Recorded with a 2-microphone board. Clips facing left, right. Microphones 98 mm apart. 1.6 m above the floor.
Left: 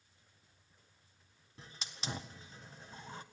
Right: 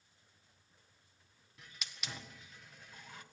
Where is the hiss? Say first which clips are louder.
Left 3 dB; 30° left (ahead or behind), 1.6 m.